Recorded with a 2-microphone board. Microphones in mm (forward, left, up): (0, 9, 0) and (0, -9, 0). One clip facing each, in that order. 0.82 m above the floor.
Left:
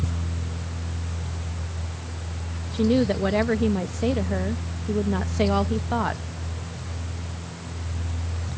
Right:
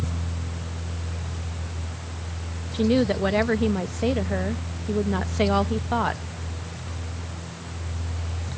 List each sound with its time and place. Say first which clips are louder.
2.7 s a woman speaking: even; 10° right (ahead or behind)